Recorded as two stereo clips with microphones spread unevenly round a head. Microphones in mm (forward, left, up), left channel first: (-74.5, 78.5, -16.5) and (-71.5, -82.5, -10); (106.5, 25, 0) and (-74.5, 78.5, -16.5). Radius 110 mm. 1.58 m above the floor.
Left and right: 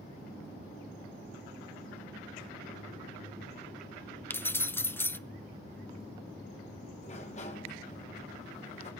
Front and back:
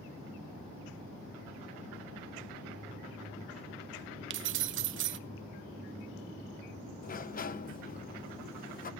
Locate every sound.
4.3 s keys jangling: 170° left, 0.8 m
7.0 s a sliding door: 30° left, 1.2 m